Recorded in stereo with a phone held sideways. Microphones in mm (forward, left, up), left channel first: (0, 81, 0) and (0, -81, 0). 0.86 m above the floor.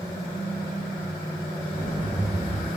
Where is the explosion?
25° left (ahead or behind), 1.5 m.